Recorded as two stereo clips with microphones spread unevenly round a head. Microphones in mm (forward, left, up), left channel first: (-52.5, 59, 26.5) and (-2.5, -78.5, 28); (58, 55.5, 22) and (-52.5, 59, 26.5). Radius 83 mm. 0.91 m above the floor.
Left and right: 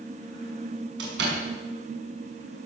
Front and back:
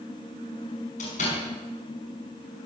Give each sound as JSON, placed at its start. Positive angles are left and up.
{"t": 1.0, "sound": "a door slam", "azimuth_deg": -45, "distance_m": 6.0}